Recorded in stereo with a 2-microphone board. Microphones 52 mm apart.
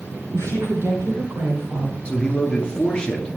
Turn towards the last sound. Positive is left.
turn(degrees=20)  # may be behind; listen again after turning